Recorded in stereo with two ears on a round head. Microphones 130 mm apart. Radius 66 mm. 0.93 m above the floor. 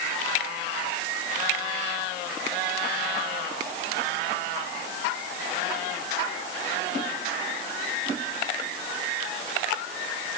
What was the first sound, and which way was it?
Only background noise.